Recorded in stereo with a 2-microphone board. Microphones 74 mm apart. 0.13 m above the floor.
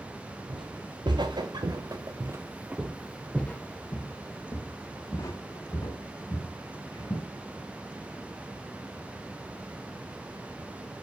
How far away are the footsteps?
About 1.8 m.